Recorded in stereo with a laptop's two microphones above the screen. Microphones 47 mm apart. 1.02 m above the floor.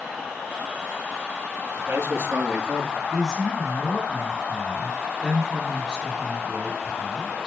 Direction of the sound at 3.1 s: Centre (ahead or behind).